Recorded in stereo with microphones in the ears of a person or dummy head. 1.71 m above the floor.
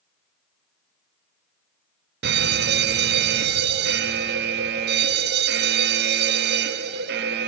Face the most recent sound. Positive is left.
turn(degrees=-50)  # may be behind; listen again after turning